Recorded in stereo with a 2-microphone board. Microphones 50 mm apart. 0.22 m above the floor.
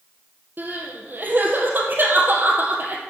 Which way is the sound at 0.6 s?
45° right (ahead or behind).